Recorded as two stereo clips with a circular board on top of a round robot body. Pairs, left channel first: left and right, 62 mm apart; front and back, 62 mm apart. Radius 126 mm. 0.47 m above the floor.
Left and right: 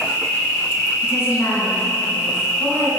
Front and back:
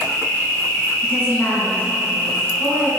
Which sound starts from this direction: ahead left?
A woman speaking, at 1.0 s.